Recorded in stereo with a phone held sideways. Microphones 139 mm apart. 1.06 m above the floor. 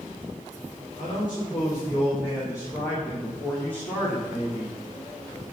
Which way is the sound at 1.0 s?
35° left (ahead or behind).